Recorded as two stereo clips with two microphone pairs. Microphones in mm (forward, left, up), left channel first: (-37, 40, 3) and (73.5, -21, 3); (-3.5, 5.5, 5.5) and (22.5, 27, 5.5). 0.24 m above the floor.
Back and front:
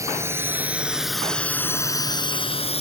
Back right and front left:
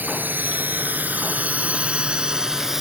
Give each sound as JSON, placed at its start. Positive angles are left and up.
{"t": 0.0, "sound": "a drone", "azimuth_deg": 35}